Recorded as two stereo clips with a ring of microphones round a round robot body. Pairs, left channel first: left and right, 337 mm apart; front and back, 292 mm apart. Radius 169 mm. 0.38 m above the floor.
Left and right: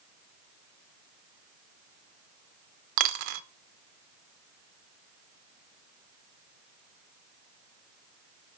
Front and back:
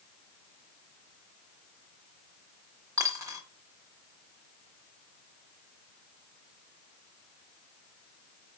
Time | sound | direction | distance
3.0 | a dropped coin | 100° right | 0.9 m